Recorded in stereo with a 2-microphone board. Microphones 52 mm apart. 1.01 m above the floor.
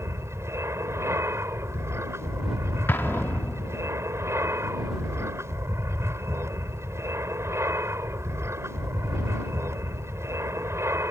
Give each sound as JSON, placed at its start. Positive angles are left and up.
{"t": 0.0, "sound": "an aircraft", "side_deg": -60}
{"t": 2.9, "sound": "an explosion", "side_deg": 45}